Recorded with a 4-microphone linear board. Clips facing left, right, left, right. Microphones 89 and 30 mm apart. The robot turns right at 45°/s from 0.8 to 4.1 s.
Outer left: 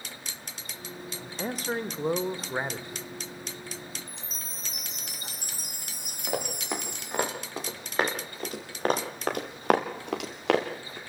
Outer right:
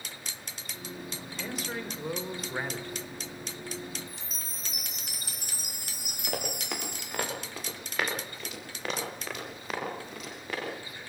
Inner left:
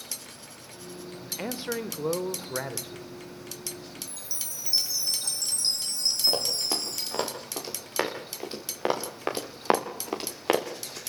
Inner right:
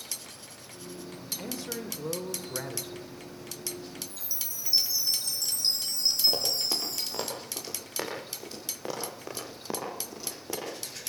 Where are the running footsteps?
15° left (ahead or behind), 7.5 m; by 11.0 s 85° left, 4.5 m.